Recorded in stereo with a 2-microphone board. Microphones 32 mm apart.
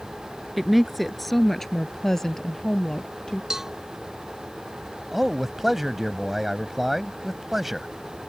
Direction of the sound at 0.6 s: 5° right (ahead or behind).